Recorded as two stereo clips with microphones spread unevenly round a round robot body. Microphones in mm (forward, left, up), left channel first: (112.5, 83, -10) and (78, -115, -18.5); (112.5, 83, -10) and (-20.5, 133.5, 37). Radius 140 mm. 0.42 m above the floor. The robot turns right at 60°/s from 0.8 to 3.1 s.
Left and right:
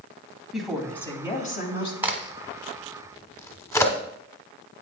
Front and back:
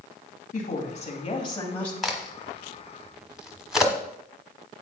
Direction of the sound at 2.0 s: 45° right.